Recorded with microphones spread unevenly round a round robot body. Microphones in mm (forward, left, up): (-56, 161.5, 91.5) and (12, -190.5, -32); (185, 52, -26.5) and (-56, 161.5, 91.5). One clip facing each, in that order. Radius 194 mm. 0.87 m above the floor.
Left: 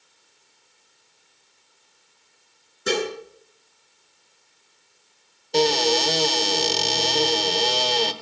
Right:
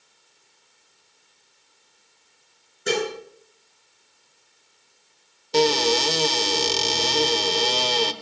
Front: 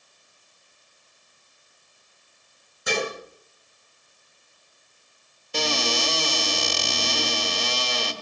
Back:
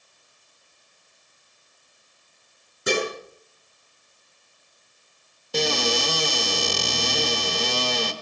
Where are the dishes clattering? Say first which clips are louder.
Even, back 3 dB; 175° left, 7 m.